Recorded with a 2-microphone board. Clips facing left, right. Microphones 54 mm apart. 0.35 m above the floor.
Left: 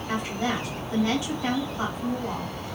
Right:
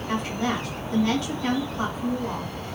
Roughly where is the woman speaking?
Left.